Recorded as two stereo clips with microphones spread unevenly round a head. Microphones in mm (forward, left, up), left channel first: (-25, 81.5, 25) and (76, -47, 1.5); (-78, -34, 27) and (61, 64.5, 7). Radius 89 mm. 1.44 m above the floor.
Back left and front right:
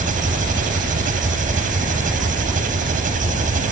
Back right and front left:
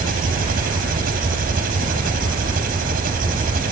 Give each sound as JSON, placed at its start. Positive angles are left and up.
{"t": 0.0, "sound": "an engine running", "azimuth_deg": -10}